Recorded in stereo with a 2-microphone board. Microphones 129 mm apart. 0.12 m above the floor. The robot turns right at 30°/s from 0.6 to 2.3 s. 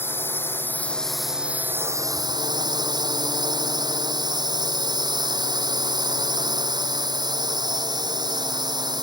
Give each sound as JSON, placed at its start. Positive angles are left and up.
{"t": 0.0, "sound": "a drone", "azimuth_deg": 165}